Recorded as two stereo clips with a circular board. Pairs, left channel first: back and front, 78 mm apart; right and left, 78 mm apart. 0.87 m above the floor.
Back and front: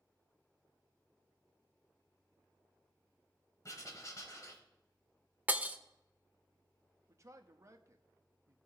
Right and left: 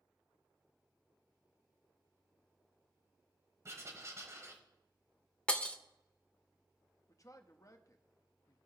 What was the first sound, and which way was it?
Writing, 140° left.